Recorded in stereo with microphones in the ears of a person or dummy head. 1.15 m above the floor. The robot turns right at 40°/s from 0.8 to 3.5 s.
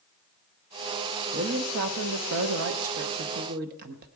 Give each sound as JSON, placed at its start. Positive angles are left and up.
{"t": 1.3, "sound": "a woman speaking", "azimuth_deg": -140, "distance_m": 0.8}